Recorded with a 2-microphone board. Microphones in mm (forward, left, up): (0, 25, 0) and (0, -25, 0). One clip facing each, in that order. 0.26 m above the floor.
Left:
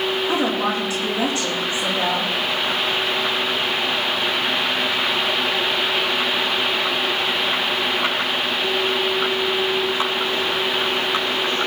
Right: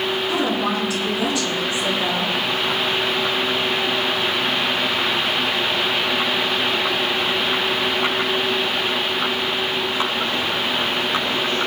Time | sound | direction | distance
0.3 | a woman speaking | 35° left (ahead or behind) | 8 m